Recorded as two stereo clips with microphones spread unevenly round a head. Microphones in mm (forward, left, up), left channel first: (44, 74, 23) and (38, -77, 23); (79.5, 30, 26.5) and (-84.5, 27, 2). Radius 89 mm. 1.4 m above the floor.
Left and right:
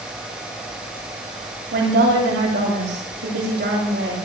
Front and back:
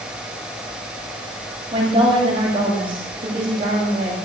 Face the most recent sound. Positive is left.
turn(degrees=-115)